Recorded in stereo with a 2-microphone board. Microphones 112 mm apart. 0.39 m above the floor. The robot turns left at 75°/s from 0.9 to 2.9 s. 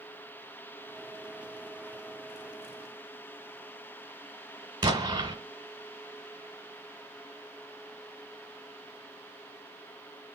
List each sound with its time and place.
4.8 s an explosion: 40° right (ahead or behind), 1.1 m